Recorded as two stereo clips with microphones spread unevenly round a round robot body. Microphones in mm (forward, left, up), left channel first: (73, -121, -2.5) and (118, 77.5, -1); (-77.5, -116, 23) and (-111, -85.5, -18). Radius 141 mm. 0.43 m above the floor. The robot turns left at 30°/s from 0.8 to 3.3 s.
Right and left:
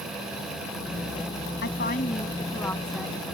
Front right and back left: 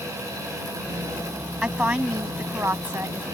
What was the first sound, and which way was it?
A woman speaking, 155° right.